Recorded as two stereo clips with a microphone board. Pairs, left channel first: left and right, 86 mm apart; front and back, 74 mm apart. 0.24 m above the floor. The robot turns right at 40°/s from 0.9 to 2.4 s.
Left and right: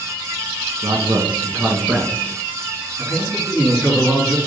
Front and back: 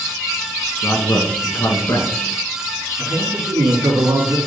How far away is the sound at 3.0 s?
About 3.5 m.